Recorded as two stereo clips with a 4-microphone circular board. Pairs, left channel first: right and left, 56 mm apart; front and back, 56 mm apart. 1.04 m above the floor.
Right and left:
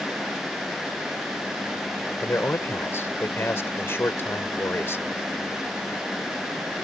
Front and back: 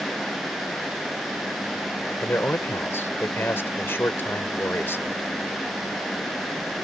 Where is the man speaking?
45° right.